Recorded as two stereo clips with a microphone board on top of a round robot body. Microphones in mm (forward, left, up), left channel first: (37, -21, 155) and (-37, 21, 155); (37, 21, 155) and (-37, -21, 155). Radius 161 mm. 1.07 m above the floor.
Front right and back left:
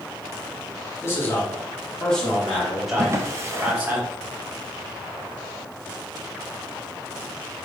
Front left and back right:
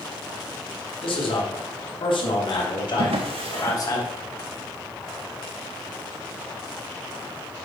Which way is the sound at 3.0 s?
150° right.